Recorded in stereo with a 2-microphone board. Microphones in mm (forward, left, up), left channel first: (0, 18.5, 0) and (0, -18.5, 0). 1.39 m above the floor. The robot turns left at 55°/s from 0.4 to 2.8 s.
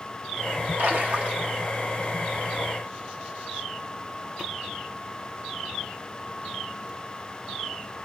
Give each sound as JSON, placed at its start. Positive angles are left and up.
{"t": 0.8, "sound": "a splash", "azimuth_deg": -110, "distance_m": 1.0}